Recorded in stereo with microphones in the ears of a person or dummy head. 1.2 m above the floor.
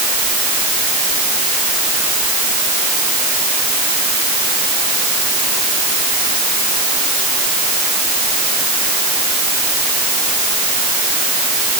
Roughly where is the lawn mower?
No lawn mower in this recording.